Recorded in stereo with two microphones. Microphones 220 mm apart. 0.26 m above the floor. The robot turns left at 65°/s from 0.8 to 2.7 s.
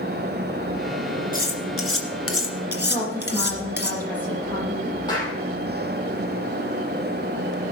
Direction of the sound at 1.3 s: 40° left (ahead or behind).